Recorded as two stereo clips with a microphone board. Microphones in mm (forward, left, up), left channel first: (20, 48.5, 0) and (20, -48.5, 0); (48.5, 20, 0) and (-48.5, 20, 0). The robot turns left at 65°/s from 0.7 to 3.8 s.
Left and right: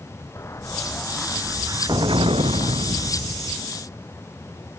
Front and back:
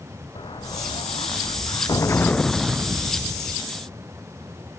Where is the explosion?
30° left; by 3.6 s 160° right.